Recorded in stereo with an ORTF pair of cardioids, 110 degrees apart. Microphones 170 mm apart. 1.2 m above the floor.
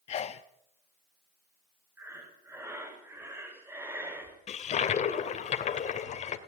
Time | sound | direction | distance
0.1 | a sneeze | 40° left | 0.8 m
2.0 | breathing | 15° right | 5.5 m
4.5 | a toilet flushing | 45° left | 2.5 m